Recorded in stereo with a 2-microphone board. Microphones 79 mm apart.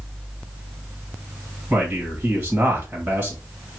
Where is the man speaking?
20° right (ahead or behind), 1.4 m.